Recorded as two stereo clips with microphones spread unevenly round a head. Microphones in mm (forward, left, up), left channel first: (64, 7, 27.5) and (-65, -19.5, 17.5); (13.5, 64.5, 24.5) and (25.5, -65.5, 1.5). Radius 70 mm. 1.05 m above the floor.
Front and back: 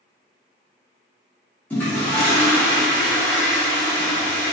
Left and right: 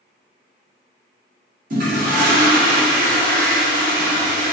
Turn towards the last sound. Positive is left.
turn(degrees=-65)